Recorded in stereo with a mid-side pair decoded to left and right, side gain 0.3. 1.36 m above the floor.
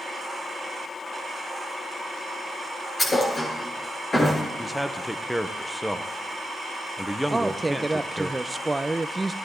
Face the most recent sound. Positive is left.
turn(degrees=-20)